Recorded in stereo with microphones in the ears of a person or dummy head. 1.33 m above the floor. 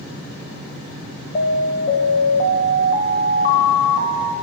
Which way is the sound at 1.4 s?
45° left (ahead or behind).